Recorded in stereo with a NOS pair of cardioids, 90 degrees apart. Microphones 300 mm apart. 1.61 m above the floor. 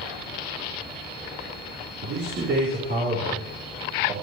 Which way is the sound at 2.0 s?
50° right.